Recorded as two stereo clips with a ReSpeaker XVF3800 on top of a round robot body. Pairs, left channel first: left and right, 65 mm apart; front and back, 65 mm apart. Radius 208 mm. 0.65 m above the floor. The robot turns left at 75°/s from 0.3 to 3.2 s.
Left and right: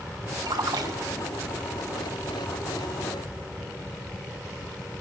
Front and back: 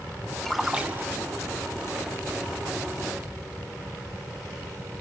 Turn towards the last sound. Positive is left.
turn(degrees=70)